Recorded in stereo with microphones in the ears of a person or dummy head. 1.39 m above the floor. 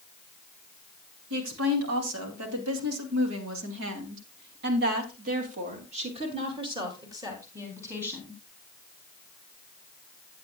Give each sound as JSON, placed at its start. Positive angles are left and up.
{"t": 1.3, "sound": "a woman speaking", "side_deg": -80, "distance_m": 3.0}